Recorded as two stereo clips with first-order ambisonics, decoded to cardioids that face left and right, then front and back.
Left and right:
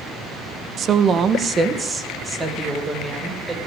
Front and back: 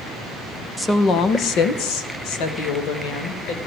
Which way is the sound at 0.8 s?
80° right.